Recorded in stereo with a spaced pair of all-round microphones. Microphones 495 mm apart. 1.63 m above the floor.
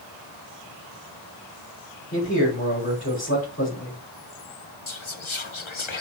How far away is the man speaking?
About 5 m.